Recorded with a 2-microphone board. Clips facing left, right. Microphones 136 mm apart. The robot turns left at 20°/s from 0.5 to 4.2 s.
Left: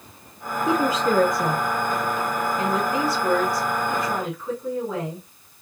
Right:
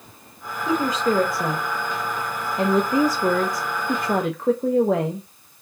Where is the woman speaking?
10° left, 0.7 m; by 5.2 s 60° right, 0.7 m.